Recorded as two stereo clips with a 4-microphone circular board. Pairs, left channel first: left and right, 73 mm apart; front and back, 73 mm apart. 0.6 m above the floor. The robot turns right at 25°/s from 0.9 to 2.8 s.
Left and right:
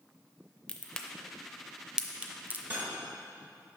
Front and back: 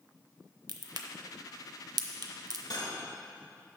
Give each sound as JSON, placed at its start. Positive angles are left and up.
{"t": 0.7, "sound": "a crack", "azimuth_deg": 165, "distance_m": 0.6}
{"t": 2.7, "sound": "cutlery clinking", "azimuth_deg": -25, "distance_m": 1.4}